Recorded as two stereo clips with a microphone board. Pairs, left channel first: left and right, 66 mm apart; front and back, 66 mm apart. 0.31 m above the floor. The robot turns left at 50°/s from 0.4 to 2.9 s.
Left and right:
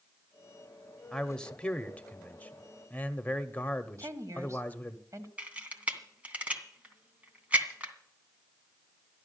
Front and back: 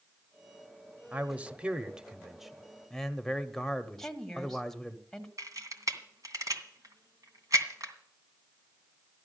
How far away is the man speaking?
About 1.0 m.